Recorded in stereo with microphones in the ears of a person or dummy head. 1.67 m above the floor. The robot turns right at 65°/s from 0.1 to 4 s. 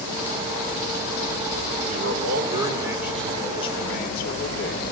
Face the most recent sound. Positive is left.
turn(degrees=55)